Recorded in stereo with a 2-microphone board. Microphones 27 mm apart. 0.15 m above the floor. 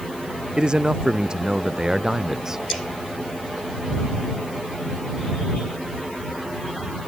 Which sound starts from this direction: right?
A man speaking, at 0.6 s.